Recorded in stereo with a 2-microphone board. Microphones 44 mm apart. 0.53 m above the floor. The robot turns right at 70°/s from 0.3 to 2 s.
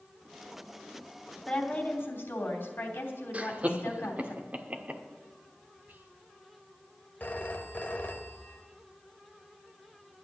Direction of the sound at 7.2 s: 40° left (ahead or behind).